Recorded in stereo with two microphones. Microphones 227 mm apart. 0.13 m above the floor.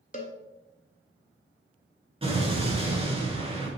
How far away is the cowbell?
About 0.7 m.